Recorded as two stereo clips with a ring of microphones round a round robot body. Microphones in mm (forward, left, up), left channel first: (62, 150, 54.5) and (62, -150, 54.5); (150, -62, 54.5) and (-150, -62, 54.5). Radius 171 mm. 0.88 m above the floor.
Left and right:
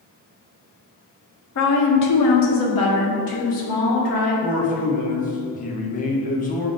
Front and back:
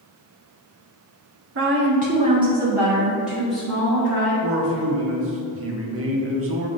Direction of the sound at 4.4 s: 150° left.